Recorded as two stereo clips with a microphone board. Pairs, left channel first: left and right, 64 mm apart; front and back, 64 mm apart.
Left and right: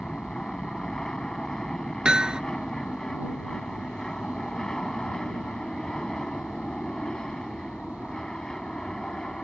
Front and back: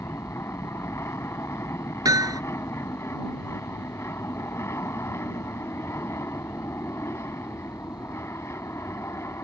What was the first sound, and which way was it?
An aircraft, 10° left.